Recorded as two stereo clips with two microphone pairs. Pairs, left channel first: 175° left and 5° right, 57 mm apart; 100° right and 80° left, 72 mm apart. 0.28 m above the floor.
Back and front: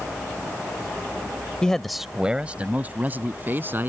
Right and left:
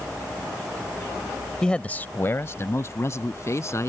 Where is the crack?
I don't hear a crack.